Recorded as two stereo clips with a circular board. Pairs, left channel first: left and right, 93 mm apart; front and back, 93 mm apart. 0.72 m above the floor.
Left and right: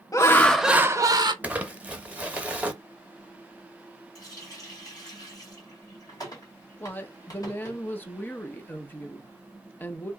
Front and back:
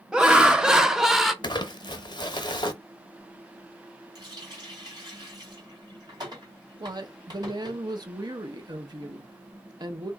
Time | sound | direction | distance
0.1 | laughter | 105° left | 0.6 m
1.4 | crumpling | 20° right | 0.6 m
4.2 | a running tap | 140° left | 1.6 m
6.8 | a woman speaking | 155° left | 0.7 m